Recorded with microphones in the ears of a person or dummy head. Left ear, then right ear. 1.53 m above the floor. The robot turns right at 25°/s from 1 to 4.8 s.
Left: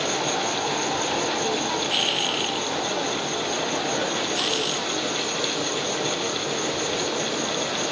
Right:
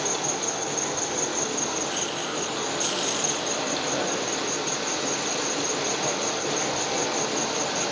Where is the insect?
170° right, 1.8 m; by 7.9 s 75° right, 1.8 m.